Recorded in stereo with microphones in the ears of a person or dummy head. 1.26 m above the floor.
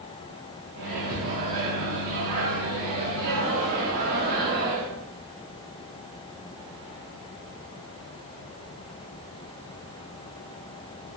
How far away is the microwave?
About 0.6 m.